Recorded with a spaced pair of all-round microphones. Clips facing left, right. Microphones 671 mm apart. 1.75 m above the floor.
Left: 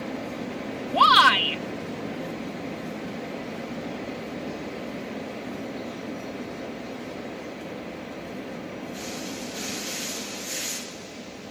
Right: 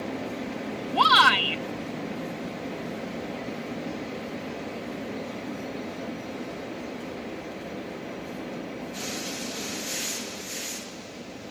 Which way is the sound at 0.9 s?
10° left (ahead or behind).